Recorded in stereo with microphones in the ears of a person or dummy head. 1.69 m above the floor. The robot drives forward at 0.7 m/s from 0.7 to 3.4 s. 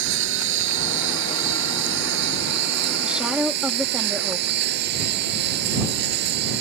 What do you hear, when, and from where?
0.0 s a lawn mower: 70° right (ahead or behind); by 6.6 s 60° right (ahead or behind)
3.0 s a woman speaking: 5° right (ahead or behind)